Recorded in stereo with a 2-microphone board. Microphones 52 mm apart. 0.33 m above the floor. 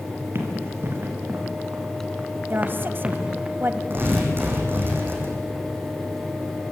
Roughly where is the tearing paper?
Right.